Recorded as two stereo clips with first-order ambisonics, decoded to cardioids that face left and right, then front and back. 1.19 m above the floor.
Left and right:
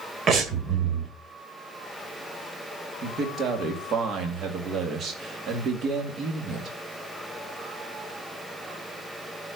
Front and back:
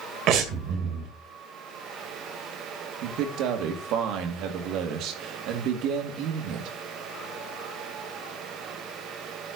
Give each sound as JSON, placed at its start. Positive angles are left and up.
{"t": 0.3, "sound": "breathing", "azimuth_deg": -145, "distance_m": 1.7}
{"t": 3.0, "sound": "a man speaking", "azimuth_deg": -145, "distance_m": 2.5}